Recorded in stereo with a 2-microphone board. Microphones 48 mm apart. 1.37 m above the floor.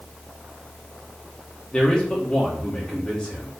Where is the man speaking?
20° left (ahead or behind), 3 m.